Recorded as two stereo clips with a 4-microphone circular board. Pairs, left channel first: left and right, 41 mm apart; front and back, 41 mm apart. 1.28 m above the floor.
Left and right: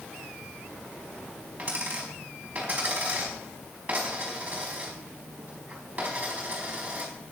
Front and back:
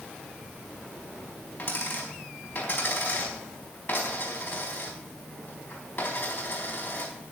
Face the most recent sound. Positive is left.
turn(degrees=-35)